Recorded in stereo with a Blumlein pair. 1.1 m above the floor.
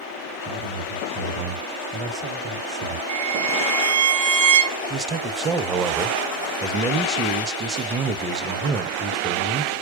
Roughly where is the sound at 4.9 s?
Ahead.